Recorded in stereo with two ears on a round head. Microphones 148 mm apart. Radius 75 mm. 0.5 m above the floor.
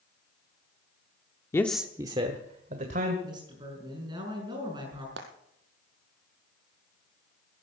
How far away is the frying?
About 2.5 m.